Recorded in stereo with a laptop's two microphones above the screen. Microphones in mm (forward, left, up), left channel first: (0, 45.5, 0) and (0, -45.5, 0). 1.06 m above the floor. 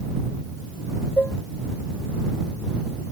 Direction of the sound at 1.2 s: 15° left (ahead or behind).